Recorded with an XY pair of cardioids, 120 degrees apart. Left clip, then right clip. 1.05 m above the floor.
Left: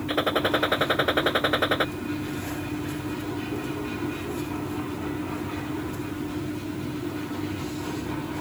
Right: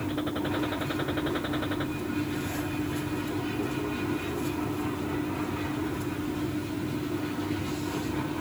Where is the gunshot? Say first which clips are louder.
Left 10 dB; 60° left.